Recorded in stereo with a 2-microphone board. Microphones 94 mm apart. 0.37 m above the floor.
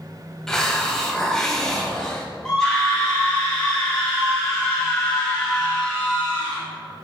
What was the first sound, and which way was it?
A hiss, 5° left (ahead or behind).